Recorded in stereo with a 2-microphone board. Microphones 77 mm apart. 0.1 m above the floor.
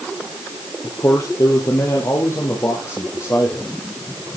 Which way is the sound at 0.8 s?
45° left (ahead or behind).